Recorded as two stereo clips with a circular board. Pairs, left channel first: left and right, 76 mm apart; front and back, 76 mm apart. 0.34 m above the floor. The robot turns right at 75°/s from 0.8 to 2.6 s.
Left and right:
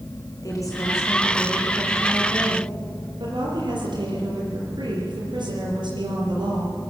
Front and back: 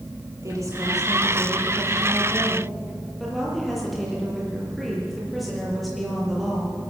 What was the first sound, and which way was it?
A woman speaking, 135° left.